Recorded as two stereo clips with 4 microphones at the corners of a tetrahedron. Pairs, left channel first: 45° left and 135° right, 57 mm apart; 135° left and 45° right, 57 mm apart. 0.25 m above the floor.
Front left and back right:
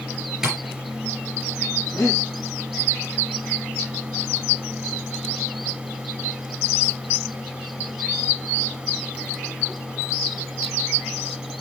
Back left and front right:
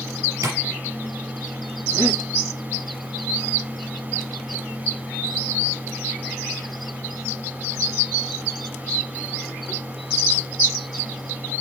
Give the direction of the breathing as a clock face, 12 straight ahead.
12 o'clock.